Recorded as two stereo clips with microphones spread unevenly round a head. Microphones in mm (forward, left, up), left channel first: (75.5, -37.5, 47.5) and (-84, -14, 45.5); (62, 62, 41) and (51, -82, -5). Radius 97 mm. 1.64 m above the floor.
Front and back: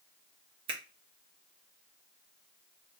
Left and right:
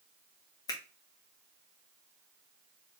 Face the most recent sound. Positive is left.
turn(degrees=115)